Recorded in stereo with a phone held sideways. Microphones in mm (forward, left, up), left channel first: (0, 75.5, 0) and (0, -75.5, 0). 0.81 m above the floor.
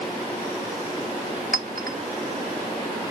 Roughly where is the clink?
Right.